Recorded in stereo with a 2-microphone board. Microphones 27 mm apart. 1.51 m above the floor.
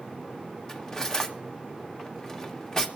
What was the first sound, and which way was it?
Cutlery clinking, 20° left (ahead or behind).